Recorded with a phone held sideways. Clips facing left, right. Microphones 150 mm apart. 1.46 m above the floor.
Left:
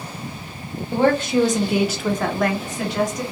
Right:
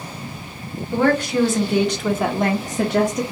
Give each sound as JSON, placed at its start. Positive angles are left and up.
{"t": 0.9, "sound": "a woman speaking", "side_deg": 30, "distance_m": 1.1}